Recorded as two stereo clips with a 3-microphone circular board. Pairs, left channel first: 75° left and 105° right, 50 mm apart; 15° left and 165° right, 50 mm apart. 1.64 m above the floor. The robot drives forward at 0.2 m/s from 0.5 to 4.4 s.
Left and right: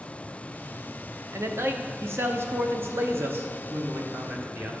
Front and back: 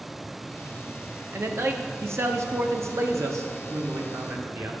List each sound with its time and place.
1.3 s a man speaking: 135° right, 0.8 m; by 4.7 s 155° right, 1.3 m